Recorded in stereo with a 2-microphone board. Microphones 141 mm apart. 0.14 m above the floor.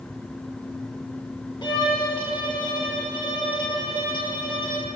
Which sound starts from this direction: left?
A violin, at 1.6 s.